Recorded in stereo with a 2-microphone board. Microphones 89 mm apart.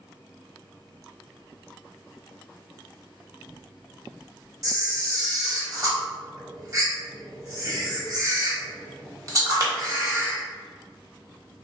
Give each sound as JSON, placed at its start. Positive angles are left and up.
{"t": 4.6, "sound": "a camera shutter", "side_deg": -40, "distance_m": 1.1}